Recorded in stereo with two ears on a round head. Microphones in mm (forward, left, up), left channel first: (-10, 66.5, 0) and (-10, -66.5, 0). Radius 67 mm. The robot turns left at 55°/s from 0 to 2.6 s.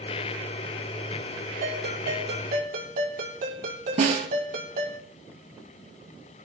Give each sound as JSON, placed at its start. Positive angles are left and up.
{"t": 1.6, "sound": "a ringtone", "azimuth_deg": -55, "distance_m": 6.0}
{"t": 4.0, "sound": "a snare drum", "side_deg": -50, "distance_m": 3.5}